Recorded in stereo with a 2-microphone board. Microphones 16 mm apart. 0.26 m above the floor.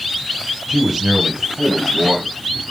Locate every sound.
0.7 s a man speaking: 30° right (ahead or behind), 1.9 m; by 2.7 s 50° right (ahead or behind), 2.5 m